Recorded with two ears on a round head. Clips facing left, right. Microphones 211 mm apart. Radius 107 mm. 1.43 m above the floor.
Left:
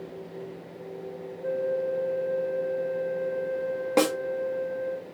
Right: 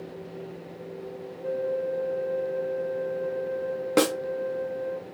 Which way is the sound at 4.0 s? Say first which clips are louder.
Right 1 dB; 15° right (ahead or behind).